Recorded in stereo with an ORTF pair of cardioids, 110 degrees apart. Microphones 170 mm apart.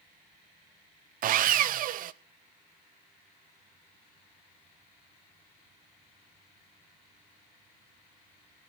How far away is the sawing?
About 0.6 m.